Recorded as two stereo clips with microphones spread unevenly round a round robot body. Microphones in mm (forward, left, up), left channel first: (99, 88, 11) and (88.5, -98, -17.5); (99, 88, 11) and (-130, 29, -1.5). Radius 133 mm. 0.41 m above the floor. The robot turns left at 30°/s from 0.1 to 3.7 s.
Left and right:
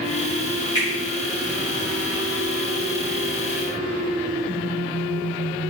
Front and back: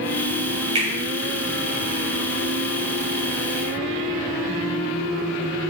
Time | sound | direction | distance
0.8 | a finger snap | 160° left | 1.4 m